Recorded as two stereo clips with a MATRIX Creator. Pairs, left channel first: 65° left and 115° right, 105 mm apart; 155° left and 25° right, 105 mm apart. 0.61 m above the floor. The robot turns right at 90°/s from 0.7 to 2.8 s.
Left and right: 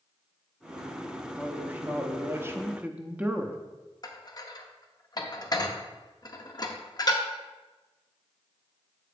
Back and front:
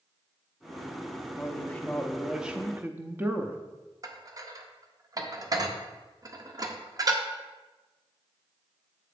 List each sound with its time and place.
1.4 s a man speaking: 170° left, 0.6 m; by 3.6 s 65° right, 0.6 m
4.0 s dishes clattering: 25° left, 0.7 m